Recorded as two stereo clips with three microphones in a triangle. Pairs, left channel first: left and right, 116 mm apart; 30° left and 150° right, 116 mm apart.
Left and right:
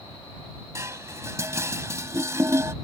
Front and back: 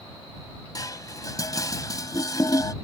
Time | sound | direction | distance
0.8 | dishes clattering | 25° right | ?